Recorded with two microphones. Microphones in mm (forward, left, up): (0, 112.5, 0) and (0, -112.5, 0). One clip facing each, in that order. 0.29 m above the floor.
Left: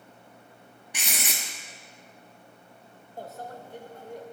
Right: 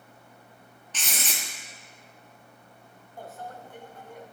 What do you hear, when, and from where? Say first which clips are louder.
0.9 s writing: left 1 dB; 15° left (ahead or behind), 1.5 m
3.2 s a microwave: left 2 dB; 40° left (ahead or behind), 0.9 m